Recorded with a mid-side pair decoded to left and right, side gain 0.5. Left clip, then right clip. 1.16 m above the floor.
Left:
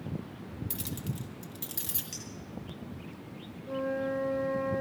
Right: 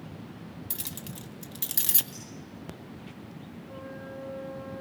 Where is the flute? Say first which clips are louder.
Left 11 dB; 60° left, 0.7 m.